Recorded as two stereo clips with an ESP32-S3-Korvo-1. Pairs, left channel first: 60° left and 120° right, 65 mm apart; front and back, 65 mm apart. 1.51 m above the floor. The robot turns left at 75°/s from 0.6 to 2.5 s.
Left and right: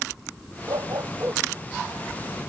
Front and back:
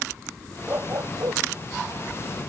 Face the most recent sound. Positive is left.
turn(degrees=100)